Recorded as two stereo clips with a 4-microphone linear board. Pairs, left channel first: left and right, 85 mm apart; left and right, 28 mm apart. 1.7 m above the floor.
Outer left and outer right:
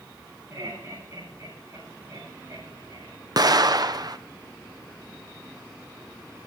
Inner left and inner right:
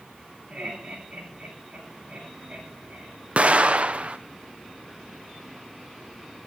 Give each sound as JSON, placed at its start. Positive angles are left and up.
{"t": 0.5, "sound": "laughter", "side_deg": -35, "distance_m": 7.0}
{"t": 3.4, "sound": "an explosion", "side_deg": -50, "distance_m": 0.7}